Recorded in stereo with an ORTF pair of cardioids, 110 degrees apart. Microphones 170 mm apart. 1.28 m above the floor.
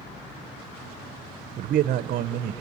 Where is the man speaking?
55° right, 0.7 m.